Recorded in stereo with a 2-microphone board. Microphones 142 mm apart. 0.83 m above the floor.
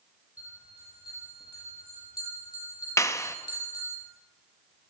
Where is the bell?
25° left (ahead or behind), 7.5 m.